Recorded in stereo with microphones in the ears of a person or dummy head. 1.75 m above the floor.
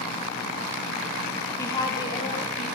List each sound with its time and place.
1.6 s a woman speaking: 15° left (ahead or behind), 3 m; by 2.7 s 40° left (ahead or behind), 3.5 m